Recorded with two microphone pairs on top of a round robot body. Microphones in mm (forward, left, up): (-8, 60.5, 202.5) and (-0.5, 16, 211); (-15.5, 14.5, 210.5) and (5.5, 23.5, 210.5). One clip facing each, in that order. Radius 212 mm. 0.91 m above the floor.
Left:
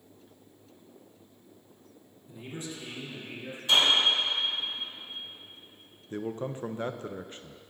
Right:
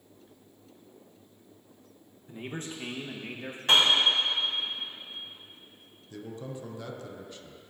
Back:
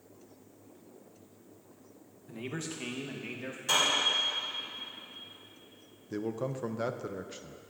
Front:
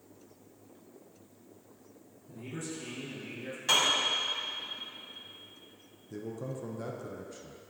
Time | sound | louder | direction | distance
2.3 | a man speaking | right 2 dB, back 2 dB | 135° right | 1.1 m
3.7 | a piano | right 1 dB, front 1 dB | 45° right | 2 m
6.1 | a man speaking | left 6 dB, back 5 dB | 150° left | 0.5 m